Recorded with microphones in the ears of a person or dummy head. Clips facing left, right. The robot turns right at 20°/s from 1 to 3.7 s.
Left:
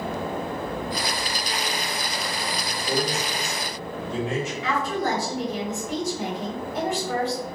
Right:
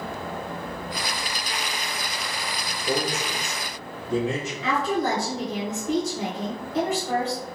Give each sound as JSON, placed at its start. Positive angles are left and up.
{"t": 2.9, "sound": "a man speaking", "side_deg": -60, "distance_m": 1.8}
{"t": 4.6, "sound": "a woman speaking", "side_deg": -70, "distance_m": 1.7}